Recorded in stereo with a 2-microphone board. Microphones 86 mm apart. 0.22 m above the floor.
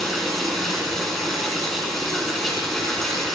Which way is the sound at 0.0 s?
5° left (ahead or behind).